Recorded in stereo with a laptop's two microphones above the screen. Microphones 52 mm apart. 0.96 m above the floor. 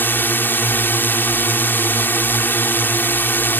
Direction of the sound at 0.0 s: 45° left (ahead or behind).